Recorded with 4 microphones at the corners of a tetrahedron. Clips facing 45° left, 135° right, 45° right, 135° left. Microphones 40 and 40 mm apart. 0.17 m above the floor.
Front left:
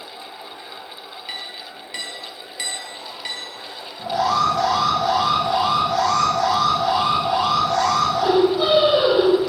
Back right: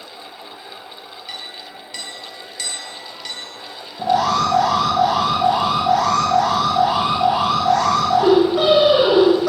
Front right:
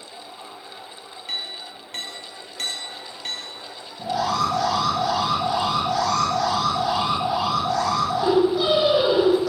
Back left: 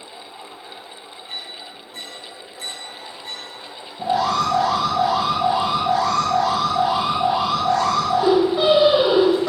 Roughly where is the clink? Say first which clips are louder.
Even, front right 3 dB; ahead right.